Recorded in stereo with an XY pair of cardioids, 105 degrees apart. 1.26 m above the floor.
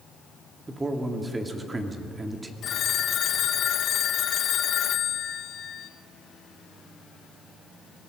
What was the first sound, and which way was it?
A man speaking, 20° right.